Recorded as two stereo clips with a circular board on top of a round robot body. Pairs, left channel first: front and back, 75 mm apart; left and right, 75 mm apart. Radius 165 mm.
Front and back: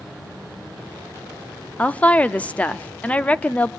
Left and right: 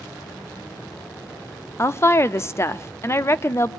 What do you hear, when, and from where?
1.8 s a woman speaking: 60° left, 1.0 m